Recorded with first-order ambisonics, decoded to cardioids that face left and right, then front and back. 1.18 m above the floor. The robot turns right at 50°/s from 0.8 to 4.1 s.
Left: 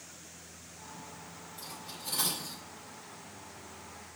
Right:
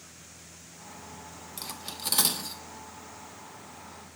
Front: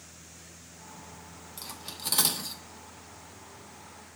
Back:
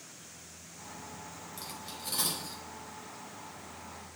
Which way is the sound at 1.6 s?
80° right.